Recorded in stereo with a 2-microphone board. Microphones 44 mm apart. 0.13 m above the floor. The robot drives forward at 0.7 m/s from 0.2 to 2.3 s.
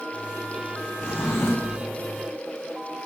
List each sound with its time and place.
1.0 s a drawer: 85° left, 2.5 m; by 1.8 s 75° left (ahead or behind), 2.5 m